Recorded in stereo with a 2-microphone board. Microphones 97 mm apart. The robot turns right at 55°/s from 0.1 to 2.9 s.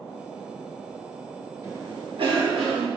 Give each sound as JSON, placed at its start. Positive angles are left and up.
{"t": 1.6, "sound": "a cough", "azimuth_deg": -150, "distance_m": 2.0}